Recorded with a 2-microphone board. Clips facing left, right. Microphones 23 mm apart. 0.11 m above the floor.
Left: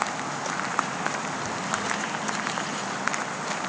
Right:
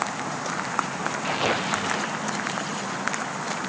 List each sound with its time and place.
1.2 s tearing paper: 85° right